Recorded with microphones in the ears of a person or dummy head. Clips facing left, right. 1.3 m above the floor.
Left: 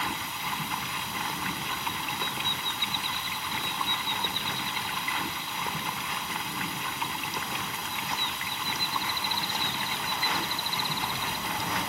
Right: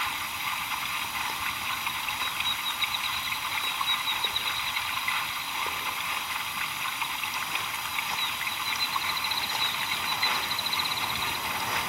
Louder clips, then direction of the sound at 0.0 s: Left 3 dB; 40° left (ahead or behind).